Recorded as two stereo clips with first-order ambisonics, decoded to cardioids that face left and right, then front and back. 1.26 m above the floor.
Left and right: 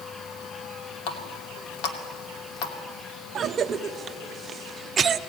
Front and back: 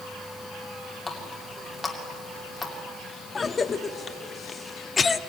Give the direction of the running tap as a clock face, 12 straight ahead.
9 o'clock.